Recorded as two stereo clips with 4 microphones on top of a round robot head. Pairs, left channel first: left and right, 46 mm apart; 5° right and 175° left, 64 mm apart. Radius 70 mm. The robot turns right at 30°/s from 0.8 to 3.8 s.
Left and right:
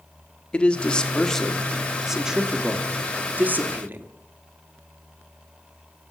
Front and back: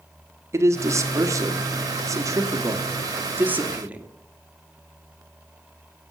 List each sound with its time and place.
0.5 s a man speaking: 150° left, 1.5 m; by 4.1 s 120° right, 1.5 m